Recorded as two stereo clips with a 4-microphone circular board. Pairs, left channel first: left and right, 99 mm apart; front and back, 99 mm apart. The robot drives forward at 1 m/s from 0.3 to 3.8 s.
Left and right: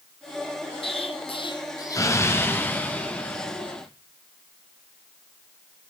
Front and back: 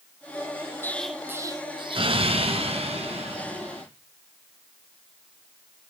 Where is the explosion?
65° left, 0.7 m; by 3.8 s 170° left, 3 m.